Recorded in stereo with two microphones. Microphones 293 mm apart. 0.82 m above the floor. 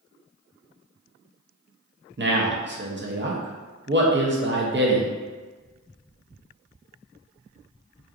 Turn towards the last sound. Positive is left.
turn(degrees=-40)  # may be behind; listen again after turning